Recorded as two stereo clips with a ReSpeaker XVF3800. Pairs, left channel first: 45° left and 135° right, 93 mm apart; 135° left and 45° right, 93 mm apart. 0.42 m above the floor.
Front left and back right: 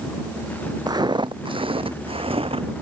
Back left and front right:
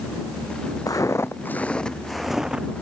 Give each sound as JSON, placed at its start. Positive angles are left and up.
{"t": 0.9, "sound": "footsteps", "azimuth_deg": -175}